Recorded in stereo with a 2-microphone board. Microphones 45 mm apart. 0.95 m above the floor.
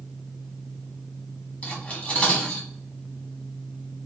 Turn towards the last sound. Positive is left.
turn(degrees=30)  # may be behind; listen again after turning